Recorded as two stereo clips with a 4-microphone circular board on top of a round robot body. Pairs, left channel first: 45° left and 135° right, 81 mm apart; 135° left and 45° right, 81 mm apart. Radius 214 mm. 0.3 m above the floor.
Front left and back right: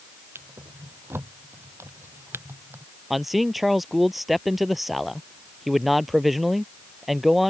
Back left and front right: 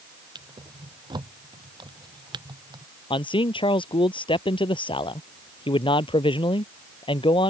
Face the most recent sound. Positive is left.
turn(degrees=135)